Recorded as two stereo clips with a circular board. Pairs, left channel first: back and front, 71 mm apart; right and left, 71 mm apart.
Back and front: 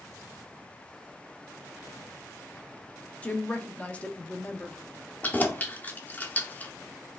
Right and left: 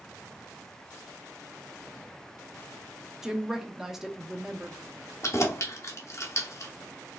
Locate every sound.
3.2 s a woman speaking: 165° left, 0.6 m
5.2 s keys jangling: 120° right, 0.7 m